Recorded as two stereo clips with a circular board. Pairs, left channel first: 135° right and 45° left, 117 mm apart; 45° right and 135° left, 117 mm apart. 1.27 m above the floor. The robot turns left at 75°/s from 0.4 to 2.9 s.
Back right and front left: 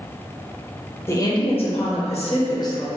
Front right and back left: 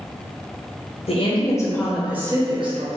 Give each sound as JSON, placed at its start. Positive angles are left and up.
{"t": 1.1, "sound": "a woman speaking", "azimuth_deg": -70, "distance_m": 0.8}